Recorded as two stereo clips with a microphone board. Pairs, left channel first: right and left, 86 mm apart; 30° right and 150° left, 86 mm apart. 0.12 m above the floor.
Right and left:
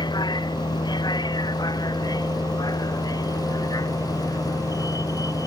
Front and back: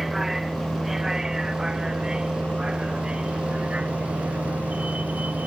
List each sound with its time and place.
0.0 s a vehicle: 120° right; by 5.5 s 135° right